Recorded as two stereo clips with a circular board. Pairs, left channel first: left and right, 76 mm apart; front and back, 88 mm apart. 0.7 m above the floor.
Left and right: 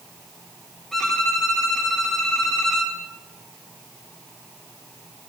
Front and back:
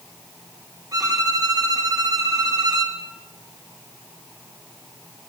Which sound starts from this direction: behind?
A violin, at 0.9 s.